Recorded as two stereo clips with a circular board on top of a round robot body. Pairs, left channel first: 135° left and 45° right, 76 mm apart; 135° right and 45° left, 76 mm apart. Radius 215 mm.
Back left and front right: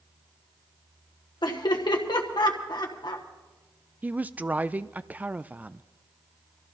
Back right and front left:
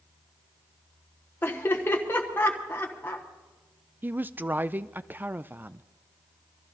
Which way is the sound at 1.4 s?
160° left.